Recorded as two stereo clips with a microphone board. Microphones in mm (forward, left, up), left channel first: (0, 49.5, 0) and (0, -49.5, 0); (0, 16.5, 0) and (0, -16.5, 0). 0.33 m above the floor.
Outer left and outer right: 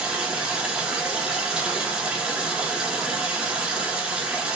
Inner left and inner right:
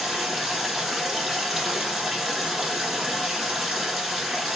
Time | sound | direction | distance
0.0 | running water | 10° right (ahead or behind) | 0.8 m